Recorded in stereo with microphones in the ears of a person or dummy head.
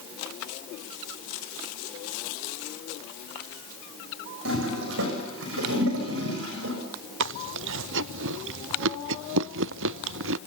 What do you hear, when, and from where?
4.5 s a toilet flushing: 65° right (ahead or behind), 6.5 m
7.2 s chewing: 70° right (ahead or behind), 0.6 m